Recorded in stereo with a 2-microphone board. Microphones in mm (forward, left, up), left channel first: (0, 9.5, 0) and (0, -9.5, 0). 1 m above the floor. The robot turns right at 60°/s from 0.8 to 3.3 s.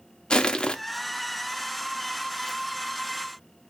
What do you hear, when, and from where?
0.3 s crushing: 55° left (ahead or behind), 0.8 m